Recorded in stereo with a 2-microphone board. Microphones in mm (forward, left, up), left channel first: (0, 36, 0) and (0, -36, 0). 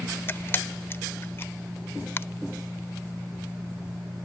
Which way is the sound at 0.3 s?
30° left (ahead or behind).